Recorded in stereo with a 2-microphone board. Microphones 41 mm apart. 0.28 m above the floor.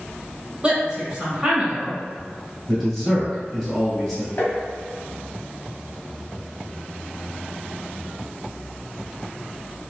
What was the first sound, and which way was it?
A woman speaking, 25° right (ahead or behind).